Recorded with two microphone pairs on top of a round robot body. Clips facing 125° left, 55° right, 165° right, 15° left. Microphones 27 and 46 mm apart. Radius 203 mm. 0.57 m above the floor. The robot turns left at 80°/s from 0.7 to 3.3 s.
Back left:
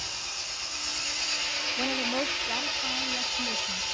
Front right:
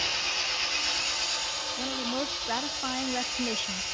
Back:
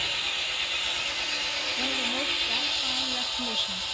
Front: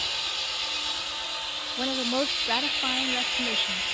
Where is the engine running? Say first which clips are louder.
Front right 6 dB, back 2 dB; 110° right, 7 m; by 4.0 s 45° left, 7 m.